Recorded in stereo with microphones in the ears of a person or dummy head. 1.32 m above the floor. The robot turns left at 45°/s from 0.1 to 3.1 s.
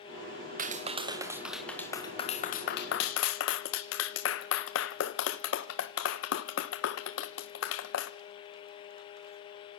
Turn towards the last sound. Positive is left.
turn(degrees=65)  # may be behind; listen again after turning